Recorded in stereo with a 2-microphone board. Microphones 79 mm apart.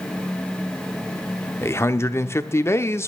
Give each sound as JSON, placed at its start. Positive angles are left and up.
{"t": 1.6, "sound": "a man speaking", "side_deg": 35, "distance_m": 0.8}